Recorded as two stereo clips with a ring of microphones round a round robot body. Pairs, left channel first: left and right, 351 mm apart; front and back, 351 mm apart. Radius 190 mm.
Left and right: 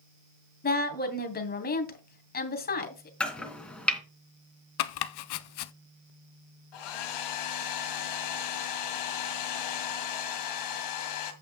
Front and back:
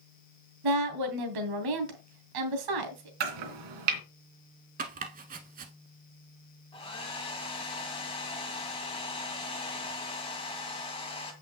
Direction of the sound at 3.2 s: 175° left.